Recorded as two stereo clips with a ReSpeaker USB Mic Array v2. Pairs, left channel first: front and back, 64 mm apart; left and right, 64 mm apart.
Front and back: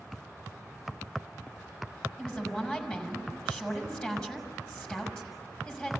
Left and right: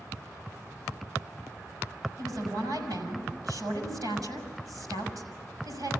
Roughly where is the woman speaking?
Right.